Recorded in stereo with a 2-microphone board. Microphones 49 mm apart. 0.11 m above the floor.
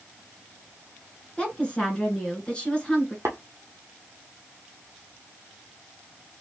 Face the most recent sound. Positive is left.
turn(degrees=-60)  # may be behind; listen again after turning